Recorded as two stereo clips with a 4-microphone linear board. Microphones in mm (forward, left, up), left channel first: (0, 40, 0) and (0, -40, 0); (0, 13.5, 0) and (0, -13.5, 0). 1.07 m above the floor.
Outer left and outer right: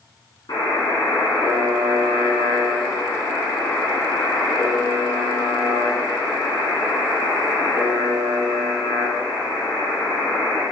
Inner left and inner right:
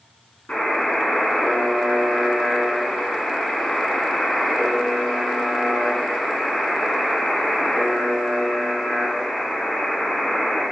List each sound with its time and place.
0.5 s a buzzer: 65° left (ahead or behind), 2.5 m